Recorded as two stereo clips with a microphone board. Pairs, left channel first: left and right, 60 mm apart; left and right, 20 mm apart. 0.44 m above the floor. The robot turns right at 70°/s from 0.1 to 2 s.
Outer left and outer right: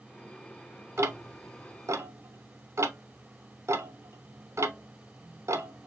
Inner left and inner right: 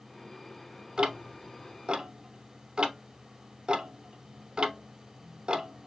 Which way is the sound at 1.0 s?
50° right (ahead or behind).